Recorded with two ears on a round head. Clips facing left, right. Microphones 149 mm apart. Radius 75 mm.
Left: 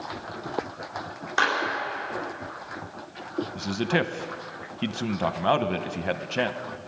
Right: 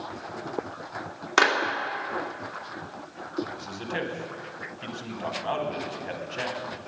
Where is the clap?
85° right, 2.5 m.